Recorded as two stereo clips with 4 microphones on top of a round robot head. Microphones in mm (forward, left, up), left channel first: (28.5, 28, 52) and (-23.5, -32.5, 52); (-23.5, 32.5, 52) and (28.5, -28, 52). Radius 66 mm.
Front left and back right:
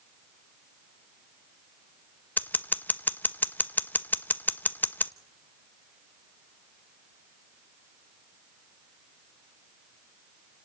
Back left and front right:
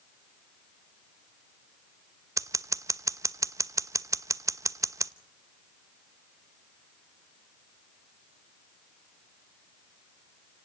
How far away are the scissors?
About 1.0 m.